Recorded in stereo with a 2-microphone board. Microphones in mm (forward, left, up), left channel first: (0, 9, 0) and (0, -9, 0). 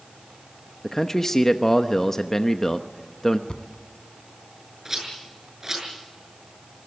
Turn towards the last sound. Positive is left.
turn(degrees=-30)  # may be behind; listen again after turning